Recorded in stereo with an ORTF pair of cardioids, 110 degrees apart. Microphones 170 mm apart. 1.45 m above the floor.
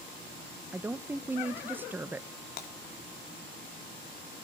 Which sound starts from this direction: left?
Breaking glass, at 2.6 s.